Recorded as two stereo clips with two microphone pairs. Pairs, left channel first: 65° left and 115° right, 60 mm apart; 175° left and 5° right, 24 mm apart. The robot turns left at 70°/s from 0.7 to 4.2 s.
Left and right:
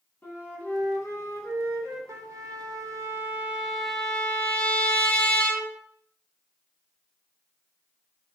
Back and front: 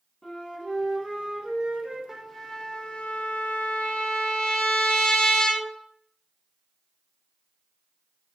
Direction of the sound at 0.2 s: 125° left.